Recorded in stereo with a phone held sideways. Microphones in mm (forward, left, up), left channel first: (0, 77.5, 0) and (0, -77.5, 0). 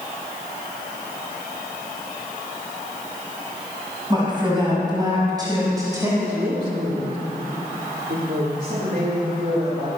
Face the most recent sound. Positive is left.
turn(degrees=-60)  # may be behind; listen again after turning